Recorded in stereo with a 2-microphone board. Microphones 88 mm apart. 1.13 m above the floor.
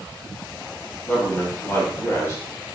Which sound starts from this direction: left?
A man speaking, at 1.1 s.